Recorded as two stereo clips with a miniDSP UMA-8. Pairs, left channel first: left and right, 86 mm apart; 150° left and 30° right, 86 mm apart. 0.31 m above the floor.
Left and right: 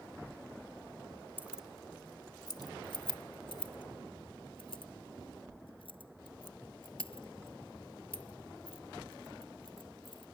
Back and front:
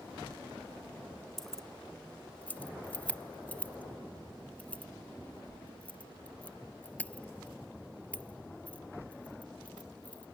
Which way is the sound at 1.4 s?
130° right.